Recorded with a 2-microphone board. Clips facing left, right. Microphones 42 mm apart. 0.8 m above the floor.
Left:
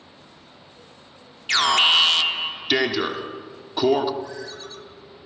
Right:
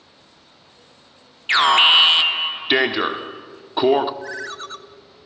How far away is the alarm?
About 1.0 m.